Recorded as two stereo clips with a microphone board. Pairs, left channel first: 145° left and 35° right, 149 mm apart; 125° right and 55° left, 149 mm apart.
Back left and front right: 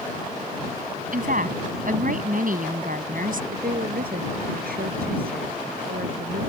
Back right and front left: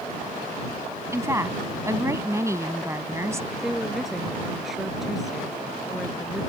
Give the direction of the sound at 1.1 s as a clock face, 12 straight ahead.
1 o'clock.